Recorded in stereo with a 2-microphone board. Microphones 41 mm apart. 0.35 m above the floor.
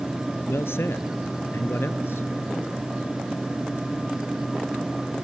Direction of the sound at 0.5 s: 75° left (ahead or behind).